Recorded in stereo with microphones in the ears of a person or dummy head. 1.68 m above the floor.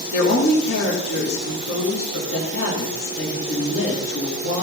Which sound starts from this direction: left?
A woman speaking, at 0.1 s.